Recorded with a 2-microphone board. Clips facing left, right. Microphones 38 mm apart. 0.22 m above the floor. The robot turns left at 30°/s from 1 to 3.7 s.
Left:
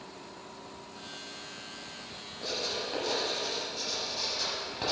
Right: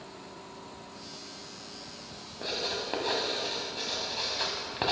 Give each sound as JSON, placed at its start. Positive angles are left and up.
{"t": 2.4, "sound": "writing", "side_deg": -30, "distance_m": 1.1}